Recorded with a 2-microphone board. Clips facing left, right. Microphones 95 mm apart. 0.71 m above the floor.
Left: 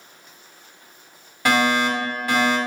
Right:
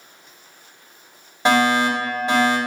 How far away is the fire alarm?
About 1.6 m.